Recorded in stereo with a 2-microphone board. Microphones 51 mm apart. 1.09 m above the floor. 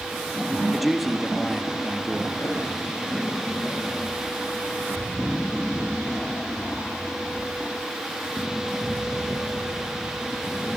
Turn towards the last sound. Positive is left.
turn(degrees=80)